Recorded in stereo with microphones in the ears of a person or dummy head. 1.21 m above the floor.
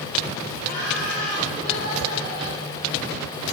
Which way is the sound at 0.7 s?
80° left.